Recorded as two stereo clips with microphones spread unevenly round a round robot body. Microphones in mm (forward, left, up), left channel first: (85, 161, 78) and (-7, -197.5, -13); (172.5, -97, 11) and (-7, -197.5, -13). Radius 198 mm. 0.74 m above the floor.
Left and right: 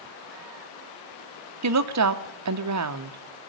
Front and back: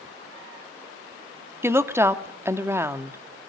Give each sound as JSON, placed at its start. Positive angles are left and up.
{"t": 1.6, "sound": "a woman speaking", "azimuth_deg": -75, "distance_m": 1.6}